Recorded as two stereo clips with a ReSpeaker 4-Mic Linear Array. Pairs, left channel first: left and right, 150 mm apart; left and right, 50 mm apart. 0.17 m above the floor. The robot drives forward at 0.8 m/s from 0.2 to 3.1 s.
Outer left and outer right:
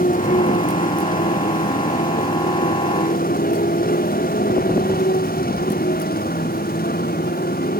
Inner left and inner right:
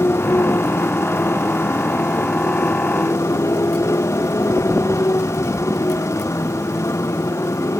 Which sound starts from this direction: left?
A motorcycle, at 0.0 s.